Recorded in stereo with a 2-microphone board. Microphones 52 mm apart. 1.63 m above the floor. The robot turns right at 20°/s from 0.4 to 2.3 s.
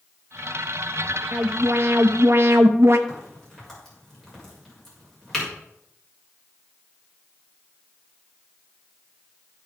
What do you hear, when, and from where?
1.3 s an alarm: 50° right (ahead or behind), 1.1 m
3.1 s a crack: 5° left (ahead or behind), 6.5 m